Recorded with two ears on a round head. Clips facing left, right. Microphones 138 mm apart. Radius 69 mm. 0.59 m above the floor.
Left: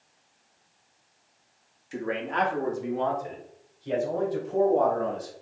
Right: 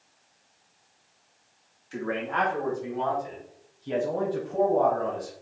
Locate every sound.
1.9 s a man speaking: 15° left (ahead or behind), 0.8 m; by 5.3 s 75° left (ahead or behind), 3 m